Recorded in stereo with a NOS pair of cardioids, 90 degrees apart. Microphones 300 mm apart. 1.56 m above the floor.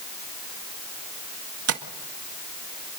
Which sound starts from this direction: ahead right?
Tapping, at 1.7 s.